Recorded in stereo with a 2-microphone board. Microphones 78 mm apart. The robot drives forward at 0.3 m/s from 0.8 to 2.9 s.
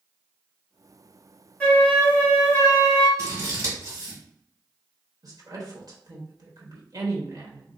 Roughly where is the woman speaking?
Right.